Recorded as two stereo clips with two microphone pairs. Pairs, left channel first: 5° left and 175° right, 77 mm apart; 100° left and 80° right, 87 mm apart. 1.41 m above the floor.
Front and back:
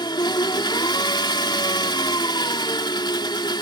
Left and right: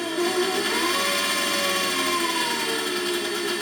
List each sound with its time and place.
0.0 s an engine running: 10° left